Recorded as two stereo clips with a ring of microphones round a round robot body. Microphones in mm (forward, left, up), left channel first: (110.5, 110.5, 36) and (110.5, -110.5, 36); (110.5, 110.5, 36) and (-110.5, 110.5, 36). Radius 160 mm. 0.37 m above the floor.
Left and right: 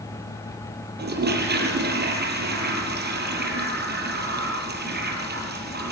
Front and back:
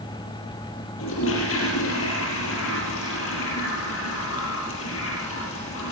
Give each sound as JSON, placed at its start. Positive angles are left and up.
{"t": 1.0, "sound": "a toilet flushing", "azimuth_deg": -45, "distance_m": 5.0}